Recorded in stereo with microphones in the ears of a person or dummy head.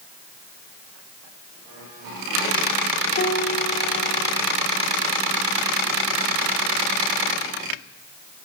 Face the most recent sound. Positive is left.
turn(degrees=55)  # may be behind; listen again after turning